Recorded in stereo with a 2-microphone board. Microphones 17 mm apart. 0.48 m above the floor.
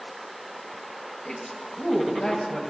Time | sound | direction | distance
1.2 | a woman speaking | 50° left (ahead or behind) | 2.5 m